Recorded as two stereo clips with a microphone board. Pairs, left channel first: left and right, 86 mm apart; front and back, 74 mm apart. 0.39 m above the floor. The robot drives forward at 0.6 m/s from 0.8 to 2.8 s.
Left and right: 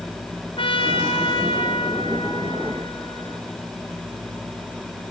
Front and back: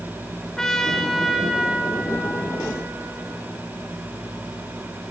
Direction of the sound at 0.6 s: 85° left.